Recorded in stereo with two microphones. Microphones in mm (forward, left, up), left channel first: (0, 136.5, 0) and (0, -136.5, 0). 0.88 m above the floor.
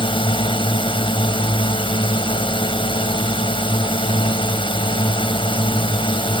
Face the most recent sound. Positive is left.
turn(degrees=20)  # may be behind; listen again after turning